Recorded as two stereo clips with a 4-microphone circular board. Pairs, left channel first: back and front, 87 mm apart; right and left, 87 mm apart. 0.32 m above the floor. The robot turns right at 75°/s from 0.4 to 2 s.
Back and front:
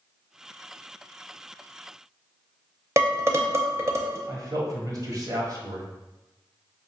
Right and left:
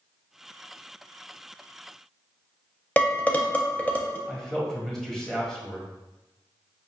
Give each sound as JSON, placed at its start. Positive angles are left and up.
{"t": 3.0, "sound": "dishes clattering", "azimuth_deg": -30, "distance_m": 0.6}
{"t": 4.3, "sound": "a man speaking", "azimuth_deg": -5, "distance_m": 1.3}